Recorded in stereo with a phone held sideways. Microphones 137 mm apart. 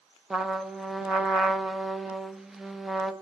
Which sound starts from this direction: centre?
A trumpet, at 0.3 s.